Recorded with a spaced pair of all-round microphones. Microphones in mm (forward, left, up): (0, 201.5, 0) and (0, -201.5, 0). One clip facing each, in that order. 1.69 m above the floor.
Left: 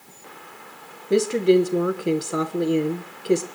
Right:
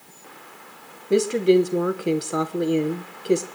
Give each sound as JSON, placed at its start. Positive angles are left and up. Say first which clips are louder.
{"t": 1.1, "sound": "a woman speaking", "louder": "even", "side_deg": 0, "distance_m": 1.1}